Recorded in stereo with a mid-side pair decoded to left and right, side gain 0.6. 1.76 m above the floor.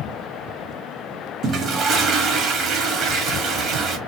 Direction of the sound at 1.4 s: 50° right.